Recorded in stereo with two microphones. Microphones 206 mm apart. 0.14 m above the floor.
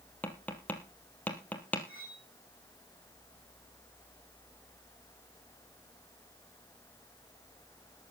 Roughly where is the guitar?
No guitar in this recording.